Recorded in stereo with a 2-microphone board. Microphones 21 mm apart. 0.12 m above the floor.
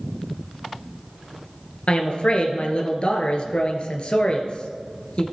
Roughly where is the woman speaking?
Left.